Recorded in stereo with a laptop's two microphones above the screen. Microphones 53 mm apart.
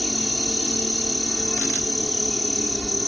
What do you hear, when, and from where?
0.0 s an insect: 10° left (ahead or behind)